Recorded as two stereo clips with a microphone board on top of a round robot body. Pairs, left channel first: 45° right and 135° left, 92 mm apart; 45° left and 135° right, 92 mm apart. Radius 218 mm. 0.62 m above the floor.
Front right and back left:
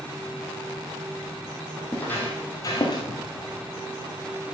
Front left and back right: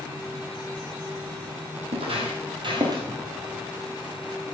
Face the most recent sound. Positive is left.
turn(degrees=-85)